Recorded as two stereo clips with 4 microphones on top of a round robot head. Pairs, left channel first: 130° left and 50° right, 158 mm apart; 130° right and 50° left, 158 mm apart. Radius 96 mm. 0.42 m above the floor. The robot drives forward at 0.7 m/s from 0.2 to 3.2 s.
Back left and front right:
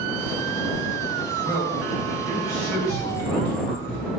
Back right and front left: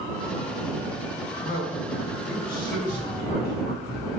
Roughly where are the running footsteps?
Behind.